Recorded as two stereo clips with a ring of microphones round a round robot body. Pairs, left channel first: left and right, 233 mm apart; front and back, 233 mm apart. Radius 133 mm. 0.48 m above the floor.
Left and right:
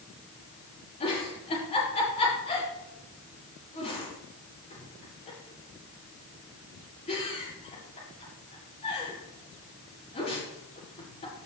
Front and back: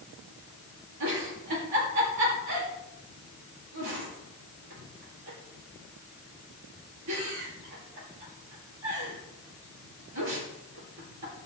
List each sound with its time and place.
1.0 s a giggle: 155° left, 7 m